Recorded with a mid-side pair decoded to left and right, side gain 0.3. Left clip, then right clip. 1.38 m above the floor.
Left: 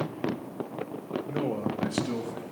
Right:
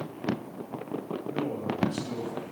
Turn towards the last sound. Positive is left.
turn(degrees=55)